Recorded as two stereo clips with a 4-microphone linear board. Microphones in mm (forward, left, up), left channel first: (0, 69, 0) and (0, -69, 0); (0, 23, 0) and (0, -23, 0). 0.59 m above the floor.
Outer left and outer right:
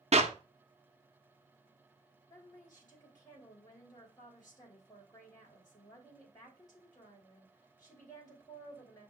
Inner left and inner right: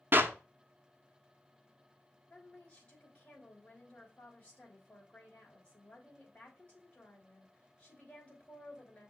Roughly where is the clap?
Right.